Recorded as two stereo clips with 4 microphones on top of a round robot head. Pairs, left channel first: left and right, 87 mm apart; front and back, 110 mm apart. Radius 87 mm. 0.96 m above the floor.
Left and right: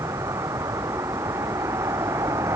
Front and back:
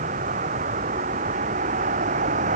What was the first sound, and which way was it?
A vehicle, 160° right.